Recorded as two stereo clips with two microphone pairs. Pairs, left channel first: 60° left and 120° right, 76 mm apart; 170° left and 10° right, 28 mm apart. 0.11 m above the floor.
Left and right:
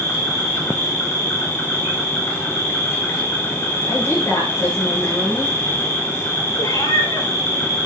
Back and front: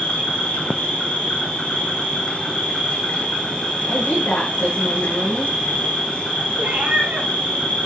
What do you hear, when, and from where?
0.0 s an insect: 120° left, 5 m
3.9 s a woman speaking: 110° left, 10 m
6.6 s a cat meowing: 20° left, 7.5 m